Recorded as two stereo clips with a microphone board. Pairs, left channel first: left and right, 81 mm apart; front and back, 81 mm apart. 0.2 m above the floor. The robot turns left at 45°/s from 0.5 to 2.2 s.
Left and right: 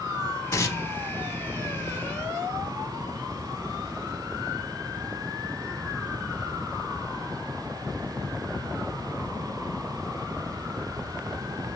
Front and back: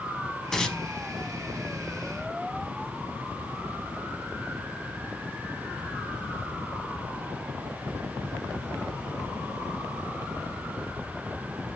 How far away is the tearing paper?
About 0.7 m.